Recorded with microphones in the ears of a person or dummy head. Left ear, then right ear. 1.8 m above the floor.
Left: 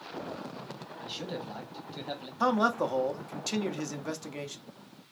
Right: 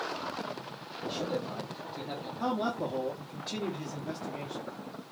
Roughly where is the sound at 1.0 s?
Left.